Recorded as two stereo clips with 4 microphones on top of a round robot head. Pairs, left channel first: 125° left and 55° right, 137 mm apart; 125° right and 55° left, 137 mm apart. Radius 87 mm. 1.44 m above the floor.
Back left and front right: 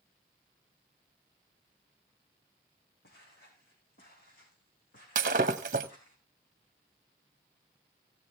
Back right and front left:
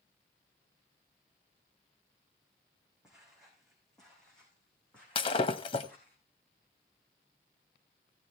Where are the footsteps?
140° left, 5.5 m; by 6.2 s 160° left, 6.5 m.